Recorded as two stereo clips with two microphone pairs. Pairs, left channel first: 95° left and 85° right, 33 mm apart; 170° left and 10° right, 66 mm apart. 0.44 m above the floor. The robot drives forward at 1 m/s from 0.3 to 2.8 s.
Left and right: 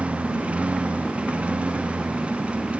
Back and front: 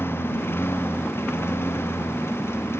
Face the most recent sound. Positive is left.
turn(degrees=-135)